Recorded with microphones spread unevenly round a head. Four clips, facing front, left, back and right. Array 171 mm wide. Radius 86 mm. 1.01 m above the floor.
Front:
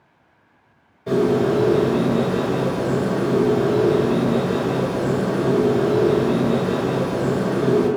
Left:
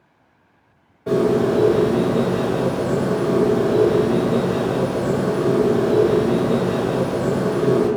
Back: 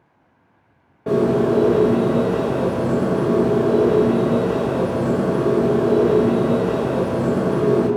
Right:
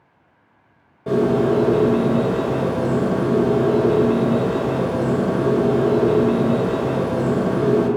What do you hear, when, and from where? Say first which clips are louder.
1.1 s a bird: even, back 1 dB; 160° right, 0.9 m